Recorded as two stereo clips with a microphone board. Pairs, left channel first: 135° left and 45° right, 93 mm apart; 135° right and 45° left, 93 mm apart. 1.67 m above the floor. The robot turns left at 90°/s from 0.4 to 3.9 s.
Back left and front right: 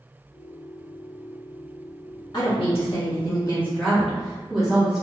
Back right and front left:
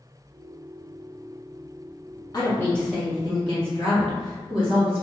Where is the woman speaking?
Straight behind, 1.6 m; by 5.0 s 40° left, 1.6 m.